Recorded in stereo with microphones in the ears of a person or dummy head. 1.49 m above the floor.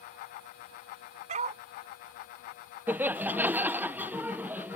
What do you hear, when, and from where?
1.3 s a dog barking: 40° right (ahead or behind)
2.9 s laughter: 10° right (ahead or behind)